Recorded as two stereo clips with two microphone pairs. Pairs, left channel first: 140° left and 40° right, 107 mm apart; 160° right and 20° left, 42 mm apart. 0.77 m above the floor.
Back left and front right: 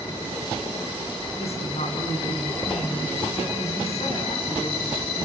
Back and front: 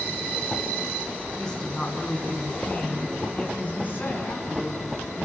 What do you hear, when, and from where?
1.4 s a woman speaking: 125° left, 7 m; by 5.2 s 160° left, 9 m